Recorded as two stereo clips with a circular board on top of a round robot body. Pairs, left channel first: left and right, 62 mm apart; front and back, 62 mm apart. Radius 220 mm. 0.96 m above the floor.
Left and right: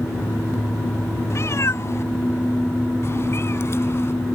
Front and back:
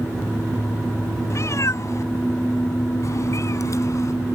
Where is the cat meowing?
45° left; by 4.1 s 40° left.